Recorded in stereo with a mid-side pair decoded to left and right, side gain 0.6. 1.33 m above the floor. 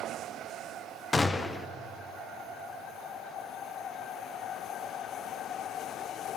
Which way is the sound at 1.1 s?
20° left.